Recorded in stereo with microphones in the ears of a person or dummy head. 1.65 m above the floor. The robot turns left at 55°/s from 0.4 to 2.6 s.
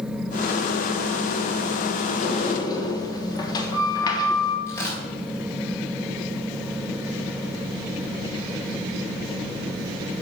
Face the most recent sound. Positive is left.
turn(degrees=20)  # may be behind; listen again after turning